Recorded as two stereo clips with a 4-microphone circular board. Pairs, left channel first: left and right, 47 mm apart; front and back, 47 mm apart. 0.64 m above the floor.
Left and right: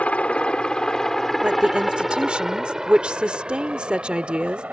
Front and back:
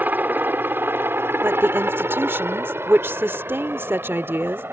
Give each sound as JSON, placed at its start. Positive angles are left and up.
{"t": 0.0, "sound": "a helicopter", "azimuth_deg": 140}
{"t": 1.4, "sound": "a woman speaking", "azimuth_deg": -155}